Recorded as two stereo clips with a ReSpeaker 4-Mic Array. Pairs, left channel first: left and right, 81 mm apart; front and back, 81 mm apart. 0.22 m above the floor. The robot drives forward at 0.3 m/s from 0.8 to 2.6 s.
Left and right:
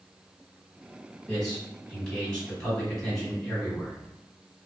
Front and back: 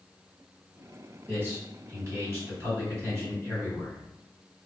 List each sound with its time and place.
1.3 s a man speaking: 165° left, 1.6 m; by 4.0 s 170° left, 1.8 m